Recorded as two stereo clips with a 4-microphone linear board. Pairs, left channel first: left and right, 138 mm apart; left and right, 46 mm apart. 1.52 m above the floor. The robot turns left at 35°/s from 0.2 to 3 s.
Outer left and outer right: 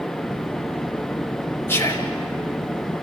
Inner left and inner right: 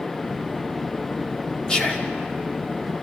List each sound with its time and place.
1.7 s whispering: 15° left (ahead or behind), 2.5 m; by 2.1 s 30° left (ahead or behind), 2.5 m